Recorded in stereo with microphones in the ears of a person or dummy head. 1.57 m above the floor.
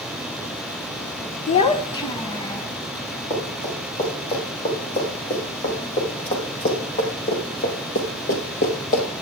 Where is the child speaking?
30° left (ahead or behind), 0.6 m; by 2.7 s 20° left (ahead or behind), 1.2 m.